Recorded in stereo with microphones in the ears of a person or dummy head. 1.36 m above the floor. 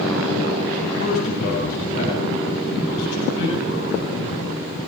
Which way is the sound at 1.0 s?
45° left (ahead or behind).